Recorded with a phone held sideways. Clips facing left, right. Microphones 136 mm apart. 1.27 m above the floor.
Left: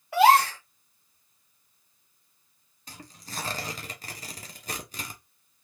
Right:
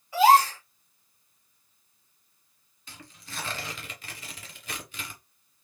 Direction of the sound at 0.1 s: 65° left (ahead or behind).